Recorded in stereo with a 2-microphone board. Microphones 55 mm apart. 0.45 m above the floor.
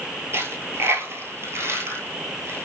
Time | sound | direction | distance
0.3 | a dropped coin | 55° right (ahead or behind) | 0.9 m